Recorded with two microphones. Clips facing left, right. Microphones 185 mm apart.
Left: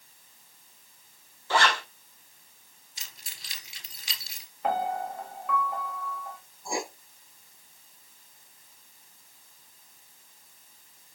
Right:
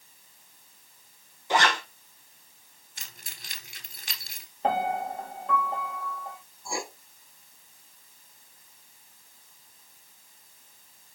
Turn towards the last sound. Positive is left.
turn(degrees=20)  # may be behind; listen again after turning